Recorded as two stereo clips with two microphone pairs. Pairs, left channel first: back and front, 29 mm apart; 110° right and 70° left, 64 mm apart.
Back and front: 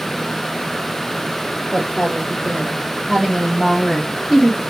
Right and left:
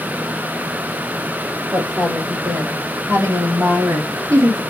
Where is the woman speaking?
125° left, 3.5 m; by 4.6 s 95° left, 2.5 m.